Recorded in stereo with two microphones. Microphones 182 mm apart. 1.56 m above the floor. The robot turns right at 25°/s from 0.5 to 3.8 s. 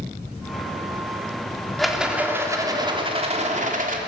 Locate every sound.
1.8 s a rattle: straight behind, 2.5 m; by 4.0 s 130° right, 2.5 m